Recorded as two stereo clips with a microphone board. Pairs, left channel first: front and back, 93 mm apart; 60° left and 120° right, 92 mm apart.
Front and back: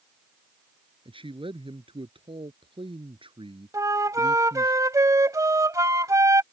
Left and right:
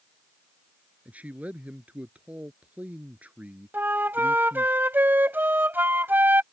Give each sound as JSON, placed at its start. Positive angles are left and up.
{"t": 1.1, "sound": "a man speaking", "azimuth_deg": 165}
{"t": 3.7, "sound": "a flute", "azimuth_deg": -170}